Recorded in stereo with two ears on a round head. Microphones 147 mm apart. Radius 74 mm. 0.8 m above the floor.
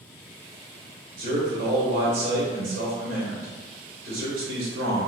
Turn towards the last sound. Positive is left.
turn(degrees=-60)  # may be behind; listen again after turning